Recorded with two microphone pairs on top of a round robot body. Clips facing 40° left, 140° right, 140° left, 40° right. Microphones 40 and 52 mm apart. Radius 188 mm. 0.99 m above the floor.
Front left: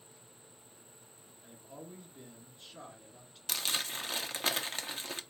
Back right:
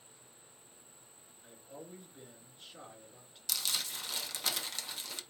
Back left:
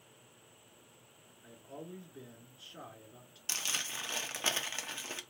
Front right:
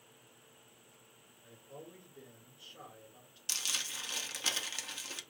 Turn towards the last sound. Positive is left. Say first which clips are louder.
# front left 2 dB, back left 2 dB
turn(degrees=85)